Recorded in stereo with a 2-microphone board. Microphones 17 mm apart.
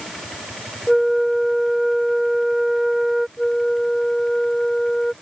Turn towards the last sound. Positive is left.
turn(degrees=30)  # may be behind; listen again after turning